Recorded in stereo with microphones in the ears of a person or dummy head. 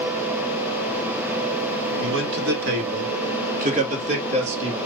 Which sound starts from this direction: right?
A man speaking, at 2.0 s.